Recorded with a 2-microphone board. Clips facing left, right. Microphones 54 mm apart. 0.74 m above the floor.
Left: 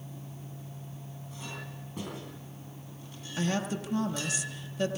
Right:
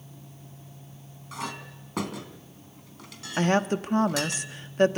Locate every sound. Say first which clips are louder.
1.3 s a clink: right 8 dB; 85° right, 3.5 m
3.4 s a woman speaking: right 7 dB; 50° right (ahead or behind), 1.4 m